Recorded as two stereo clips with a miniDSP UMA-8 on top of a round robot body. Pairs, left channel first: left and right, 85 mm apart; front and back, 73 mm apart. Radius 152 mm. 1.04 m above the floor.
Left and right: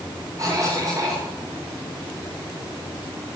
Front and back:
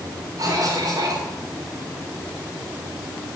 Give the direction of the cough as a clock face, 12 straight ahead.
5 o'clock.